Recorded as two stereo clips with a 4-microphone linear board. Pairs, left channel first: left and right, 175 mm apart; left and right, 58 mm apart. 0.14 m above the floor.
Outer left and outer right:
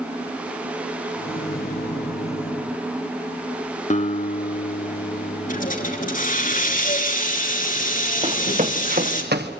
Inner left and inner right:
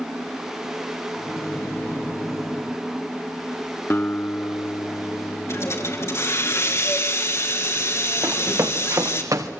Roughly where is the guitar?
Left.